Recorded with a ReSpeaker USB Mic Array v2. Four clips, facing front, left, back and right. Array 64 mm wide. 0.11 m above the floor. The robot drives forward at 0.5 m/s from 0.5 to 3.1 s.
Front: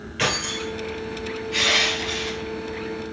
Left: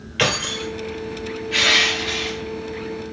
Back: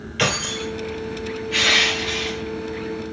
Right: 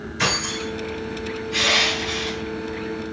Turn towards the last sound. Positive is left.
turn(degrees=140)